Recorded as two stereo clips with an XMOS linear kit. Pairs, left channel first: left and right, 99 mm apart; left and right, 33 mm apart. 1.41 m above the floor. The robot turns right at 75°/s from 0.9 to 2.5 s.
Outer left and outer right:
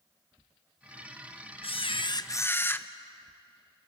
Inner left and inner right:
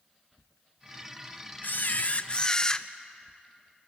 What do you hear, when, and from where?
1.6 s a camera shutter: 90° left, 0.7 m; by 2.9 s 155° left, 0.7 m